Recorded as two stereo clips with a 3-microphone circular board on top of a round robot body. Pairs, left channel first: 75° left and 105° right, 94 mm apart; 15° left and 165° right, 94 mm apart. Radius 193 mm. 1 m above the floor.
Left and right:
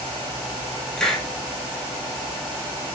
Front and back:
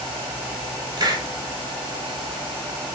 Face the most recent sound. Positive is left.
turn(degrees=155)